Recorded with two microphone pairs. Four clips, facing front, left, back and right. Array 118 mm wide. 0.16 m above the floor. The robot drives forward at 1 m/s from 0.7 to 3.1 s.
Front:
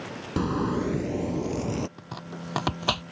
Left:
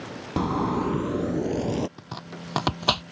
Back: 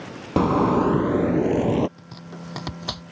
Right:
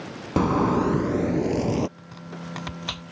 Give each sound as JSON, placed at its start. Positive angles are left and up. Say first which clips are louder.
{"t": 0.4, "sound": "a zipper", "louder": "right 4 dB, back 8 dB", "azimuth_deg": -170}
{"t": 2.0, "sound": "chopping", "louder": "even, front 1 dB", "azimuth_deg": 50}